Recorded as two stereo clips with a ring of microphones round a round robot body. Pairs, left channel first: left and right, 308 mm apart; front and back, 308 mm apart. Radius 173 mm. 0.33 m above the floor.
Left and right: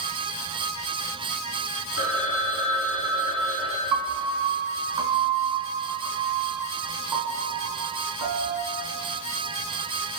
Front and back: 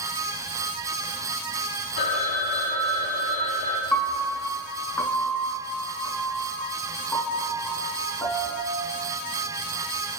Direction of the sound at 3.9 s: 85° right.